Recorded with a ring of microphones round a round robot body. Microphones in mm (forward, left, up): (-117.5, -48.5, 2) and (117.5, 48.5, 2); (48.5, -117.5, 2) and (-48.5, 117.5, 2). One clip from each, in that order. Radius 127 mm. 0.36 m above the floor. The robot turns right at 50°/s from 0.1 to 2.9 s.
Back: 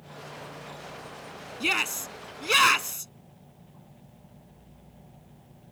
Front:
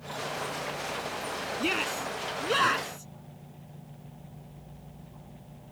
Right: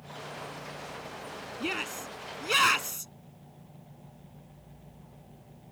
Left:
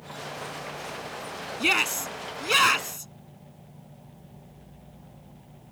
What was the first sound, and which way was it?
A shout, 150° left.